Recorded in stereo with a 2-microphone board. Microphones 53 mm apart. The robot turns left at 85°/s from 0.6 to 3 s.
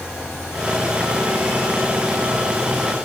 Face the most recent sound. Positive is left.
No sound to turn to.